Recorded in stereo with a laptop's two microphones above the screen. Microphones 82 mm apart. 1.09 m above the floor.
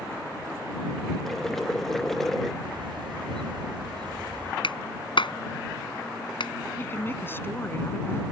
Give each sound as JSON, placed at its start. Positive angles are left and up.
{"t": 1.2, "sound": "boiling", "side_deg": 5}
{"t": 2.6, "sound": "a bird", "side_deg": -80}
{"t": 4.6, "sound": "a clap", "side_deg": 80}
{"t": 6.8, "sound": "a woman speaking", "side_deg": 25}